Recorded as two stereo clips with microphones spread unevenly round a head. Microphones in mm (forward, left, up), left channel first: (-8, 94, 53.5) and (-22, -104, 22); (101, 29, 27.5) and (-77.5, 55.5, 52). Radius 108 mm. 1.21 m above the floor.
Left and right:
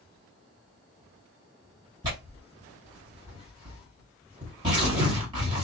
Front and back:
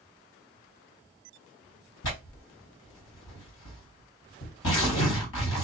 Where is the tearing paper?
20° right, 1.7 m.